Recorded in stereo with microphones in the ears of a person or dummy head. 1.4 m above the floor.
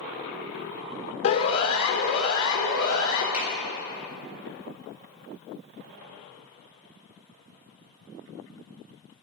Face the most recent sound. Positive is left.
turn(degrees=-5)  # may be behind; listen again after turning